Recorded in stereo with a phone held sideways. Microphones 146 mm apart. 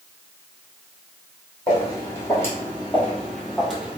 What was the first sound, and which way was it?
Footsteps, 25° left (ahead or behind).